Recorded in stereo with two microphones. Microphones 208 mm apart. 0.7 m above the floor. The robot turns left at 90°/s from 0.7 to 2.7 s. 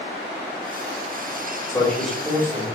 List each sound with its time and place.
1.7 s a man speaking: 40° left, 1.1 m; by 2.7 s 50° right, 1.1 m